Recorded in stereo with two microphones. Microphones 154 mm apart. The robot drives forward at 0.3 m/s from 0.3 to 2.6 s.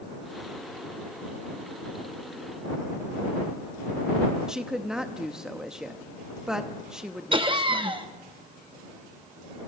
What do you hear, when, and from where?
4.5 s a woman speaking: 5° right (ahead or behind), 0.8 m
7.3 s laughter: 35° right (ahead or behind), 0.7 m